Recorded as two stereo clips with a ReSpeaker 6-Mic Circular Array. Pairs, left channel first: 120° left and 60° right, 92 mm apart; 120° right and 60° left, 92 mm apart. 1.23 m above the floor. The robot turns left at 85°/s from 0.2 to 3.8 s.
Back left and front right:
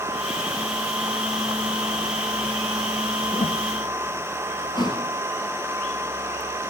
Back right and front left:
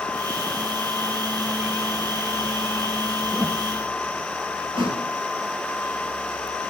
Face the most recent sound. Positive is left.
turn(degrees=85)